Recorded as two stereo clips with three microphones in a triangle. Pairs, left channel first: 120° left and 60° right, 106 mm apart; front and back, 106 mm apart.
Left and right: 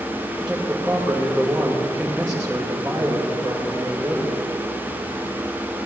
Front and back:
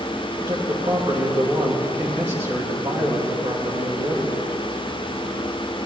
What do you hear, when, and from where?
0.4 s a man speaking: 145° right, 2.5 m